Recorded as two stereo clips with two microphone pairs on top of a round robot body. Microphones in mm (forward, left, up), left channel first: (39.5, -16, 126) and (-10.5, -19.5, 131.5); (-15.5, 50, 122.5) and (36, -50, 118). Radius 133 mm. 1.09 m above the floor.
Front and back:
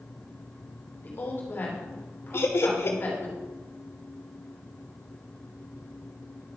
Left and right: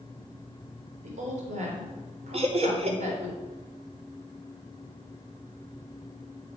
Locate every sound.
1.0 s a woman speaking: 45° right, 4 m
2.3 s laughter: 30° right, 2.5 m